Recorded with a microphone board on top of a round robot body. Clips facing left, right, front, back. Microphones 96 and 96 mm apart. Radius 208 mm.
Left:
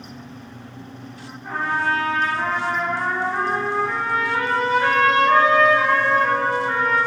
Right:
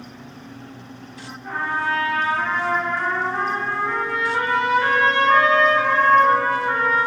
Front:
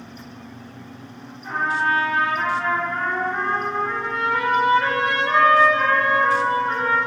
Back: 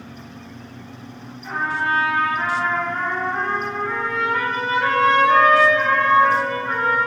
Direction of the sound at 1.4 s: 40° left.